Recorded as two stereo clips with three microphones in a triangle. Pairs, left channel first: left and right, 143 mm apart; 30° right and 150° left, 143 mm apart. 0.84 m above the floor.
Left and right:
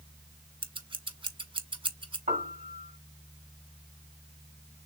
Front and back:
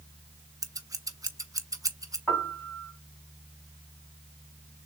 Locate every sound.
0.6 s scissors: 145° right, 0.8 m
2.3 s a piano: 115° right, 3 m